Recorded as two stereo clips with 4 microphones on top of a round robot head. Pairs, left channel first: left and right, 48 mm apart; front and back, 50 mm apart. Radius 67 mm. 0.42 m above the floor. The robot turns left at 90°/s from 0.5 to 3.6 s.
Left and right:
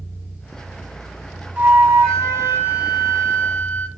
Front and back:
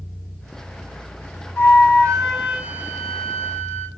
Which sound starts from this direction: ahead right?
A flute, at 1.6 s.